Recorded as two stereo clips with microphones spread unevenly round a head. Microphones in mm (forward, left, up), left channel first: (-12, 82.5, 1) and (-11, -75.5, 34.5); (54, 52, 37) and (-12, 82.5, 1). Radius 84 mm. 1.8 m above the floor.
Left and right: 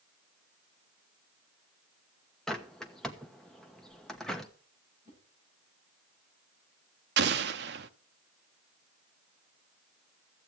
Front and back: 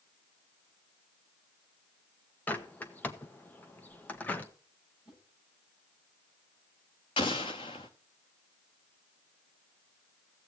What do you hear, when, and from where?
2.5 s a bird: 5° right, 1.0 m
5.0 s a whoosh: 15° right, 6.5 m
7.2 s an explosion: 65° right, 0.8 m